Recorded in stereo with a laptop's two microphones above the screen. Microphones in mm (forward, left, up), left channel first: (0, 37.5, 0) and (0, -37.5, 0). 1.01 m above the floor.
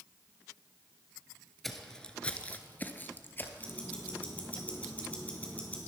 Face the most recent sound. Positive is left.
turn(degrees=20)  # may be behind; listen again after turning